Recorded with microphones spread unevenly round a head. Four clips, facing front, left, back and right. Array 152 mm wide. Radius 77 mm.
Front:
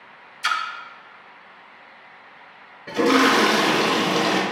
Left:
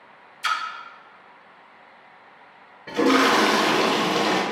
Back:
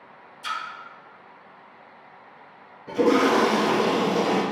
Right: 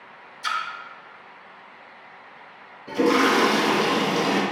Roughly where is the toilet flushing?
Ahead left.